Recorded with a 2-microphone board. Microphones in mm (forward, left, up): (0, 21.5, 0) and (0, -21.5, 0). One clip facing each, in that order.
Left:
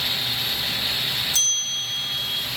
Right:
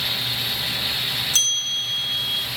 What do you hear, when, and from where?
1.3 s a bell: 65° right (ahead or behind), 3 m